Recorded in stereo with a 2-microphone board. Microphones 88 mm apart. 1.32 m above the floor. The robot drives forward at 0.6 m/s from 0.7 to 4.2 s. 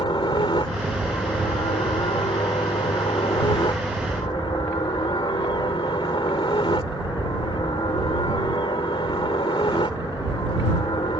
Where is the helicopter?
75° left (ahead or behind).